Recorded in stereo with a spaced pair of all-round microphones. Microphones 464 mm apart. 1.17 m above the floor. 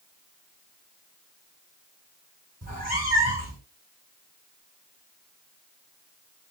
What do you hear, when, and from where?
2.6 s a cat meowing: 20° right (ahead or behind), 1.3 m